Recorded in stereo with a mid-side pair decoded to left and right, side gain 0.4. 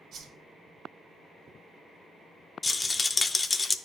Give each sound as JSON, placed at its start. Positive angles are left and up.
{"t": 0.1, "sound": "a whoosh", "azimuth_deg": -70, "distance_m": 2.5}
{"t": 2.6, "sound": "a rattle", "azimuth_deg": 30, "distance_m": 0.5}